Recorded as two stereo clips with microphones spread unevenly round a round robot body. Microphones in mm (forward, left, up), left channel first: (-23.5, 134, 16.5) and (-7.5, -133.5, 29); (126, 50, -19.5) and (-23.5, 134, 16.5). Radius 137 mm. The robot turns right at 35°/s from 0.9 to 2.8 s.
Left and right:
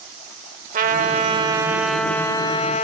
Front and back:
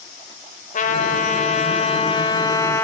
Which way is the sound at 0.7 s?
30° right.